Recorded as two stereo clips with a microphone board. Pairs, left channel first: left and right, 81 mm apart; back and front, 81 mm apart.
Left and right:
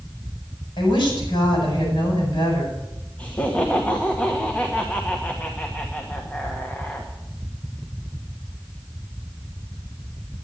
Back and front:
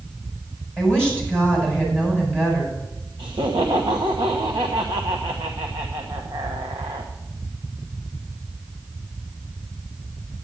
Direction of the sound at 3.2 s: 15° left.